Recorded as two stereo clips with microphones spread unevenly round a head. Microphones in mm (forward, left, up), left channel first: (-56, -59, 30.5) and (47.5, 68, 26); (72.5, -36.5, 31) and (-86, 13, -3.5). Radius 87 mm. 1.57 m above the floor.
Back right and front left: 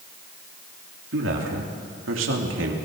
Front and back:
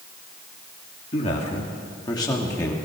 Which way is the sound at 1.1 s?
35° left.